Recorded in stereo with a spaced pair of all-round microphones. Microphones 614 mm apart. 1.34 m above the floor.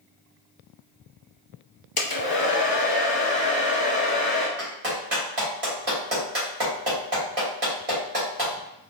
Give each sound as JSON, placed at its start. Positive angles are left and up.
{"t": 2.0, "sound": "a hair dryer", "side_deg": 35, "distance_m": 0.7}
{"t": 4.6, "sound": "a clap", "side_deg": -65, "distance_m": 1.9}